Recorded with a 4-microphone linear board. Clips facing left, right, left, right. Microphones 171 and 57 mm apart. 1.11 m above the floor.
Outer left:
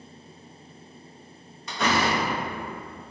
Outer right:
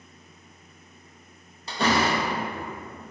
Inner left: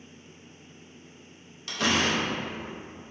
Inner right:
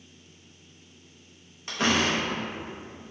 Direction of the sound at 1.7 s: 30° right (ahead or behind).